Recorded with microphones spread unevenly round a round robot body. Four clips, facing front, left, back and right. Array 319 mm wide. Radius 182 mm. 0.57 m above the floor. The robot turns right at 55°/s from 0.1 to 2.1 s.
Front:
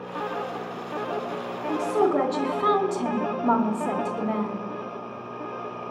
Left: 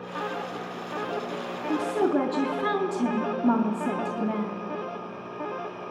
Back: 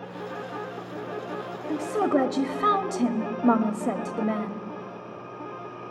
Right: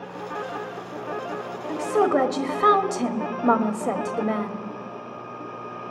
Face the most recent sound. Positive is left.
turn(degrees=-170)